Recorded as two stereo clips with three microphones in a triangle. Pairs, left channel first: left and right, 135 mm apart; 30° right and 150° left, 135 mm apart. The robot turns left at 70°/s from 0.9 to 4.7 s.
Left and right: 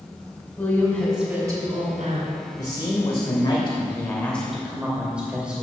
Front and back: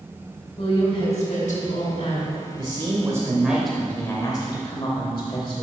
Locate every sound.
0.6 s a woman speaking: 25° left, 2.5 m; by 2.4 s 80° right, 2.5 m
2.6 s a man speaking: 135° left, 1.1 m; by 5.6 s 15° right, 1.1 m